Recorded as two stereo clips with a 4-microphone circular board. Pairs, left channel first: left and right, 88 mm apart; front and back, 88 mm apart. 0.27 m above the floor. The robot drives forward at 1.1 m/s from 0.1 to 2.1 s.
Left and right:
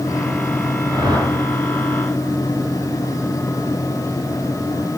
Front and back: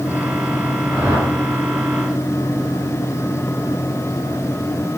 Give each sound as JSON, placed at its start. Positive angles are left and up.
{"t": 0.9, "sound": "a whoosh", "azimuth_deg": -125, "distance_m": 3.5}